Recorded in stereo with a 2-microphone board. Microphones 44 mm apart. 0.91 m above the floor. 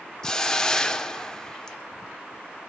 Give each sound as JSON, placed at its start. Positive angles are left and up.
{"t": 0.2, "sound": "a hiss", "side_deg": 15, "distance_m": 0.9}